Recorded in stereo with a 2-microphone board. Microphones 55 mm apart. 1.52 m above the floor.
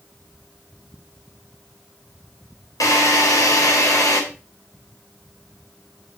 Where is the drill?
80° left, 3.5 m.